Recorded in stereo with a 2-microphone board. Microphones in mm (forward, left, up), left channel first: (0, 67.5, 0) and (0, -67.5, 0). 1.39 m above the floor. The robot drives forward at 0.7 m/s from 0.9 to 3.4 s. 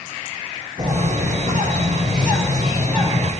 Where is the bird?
75° right (ahead or behind), 7.5 m; by 3.3 s 65° right (ahead or behind), 8 m.